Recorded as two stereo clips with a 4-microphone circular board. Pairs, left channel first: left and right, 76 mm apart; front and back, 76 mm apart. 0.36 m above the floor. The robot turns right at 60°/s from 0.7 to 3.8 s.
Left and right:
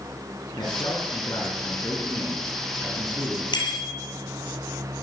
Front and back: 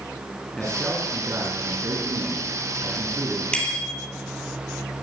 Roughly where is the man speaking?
Left.